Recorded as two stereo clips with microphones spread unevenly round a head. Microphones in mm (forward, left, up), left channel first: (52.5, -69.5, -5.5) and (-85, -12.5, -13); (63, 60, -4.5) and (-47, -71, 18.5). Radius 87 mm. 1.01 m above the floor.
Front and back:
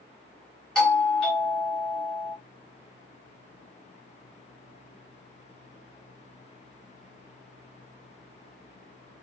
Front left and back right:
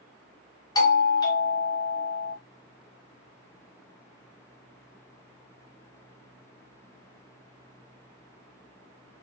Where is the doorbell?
65° left, 1.0 m.